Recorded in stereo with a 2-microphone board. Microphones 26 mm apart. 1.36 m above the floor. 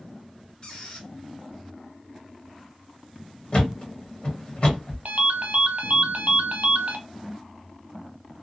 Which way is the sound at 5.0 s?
55° right (ahead or behind).